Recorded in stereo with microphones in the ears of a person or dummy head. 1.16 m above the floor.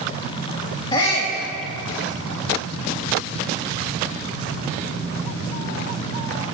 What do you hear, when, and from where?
0.9 s a shout: 30° left (ahead or behind), 1.7 m